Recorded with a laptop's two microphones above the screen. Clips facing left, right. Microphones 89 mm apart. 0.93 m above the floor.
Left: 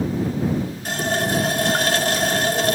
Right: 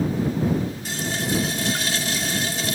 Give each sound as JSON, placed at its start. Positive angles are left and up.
{"t": 0.8, "sound": "a running tap", "side_deg": 50}